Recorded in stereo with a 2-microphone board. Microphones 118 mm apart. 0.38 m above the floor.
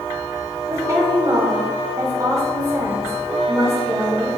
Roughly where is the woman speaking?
Right.